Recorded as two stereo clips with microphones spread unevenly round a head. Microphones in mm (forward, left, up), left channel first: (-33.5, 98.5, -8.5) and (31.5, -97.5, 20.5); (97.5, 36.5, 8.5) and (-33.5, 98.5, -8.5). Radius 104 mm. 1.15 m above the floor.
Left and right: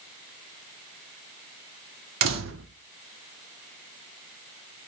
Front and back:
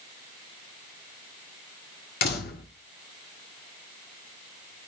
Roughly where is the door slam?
Ahead right.